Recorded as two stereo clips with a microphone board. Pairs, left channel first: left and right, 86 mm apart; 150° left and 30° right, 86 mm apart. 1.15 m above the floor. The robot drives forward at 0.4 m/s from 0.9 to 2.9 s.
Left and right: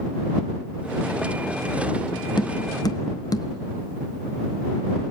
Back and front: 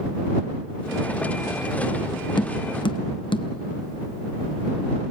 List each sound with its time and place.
2.4 s tapping: 125° left, 0.7 m; by 3.5 s 135° left, 0.9 m